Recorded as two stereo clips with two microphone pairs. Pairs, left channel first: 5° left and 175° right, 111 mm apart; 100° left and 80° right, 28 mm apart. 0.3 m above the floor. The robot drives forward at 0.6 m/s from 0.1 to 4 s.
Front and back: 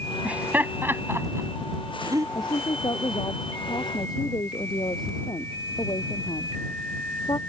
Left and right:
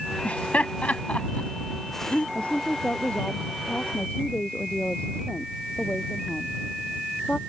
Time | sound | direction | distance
0.2 | laughter | 110° left | ?
2.4 | a woman speaking | 55° left | ?